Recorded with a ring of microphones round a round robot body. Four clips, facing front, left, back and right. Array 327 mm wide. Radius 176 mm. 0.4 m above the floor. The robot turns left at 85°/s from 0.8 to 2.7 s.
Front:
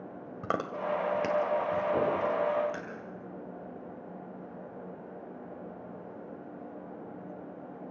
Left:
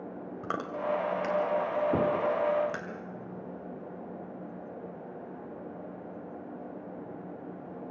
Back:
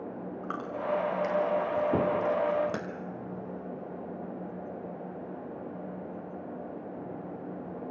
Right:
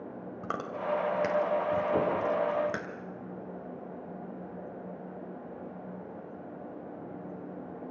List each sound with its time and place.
0.4 s chewing: 5° left, 2 m; by 2.9 s 155° right, 2 m
1.9 s knocking: 140° left, 3.5 m; by 2.1 s 120° left, 3.5 m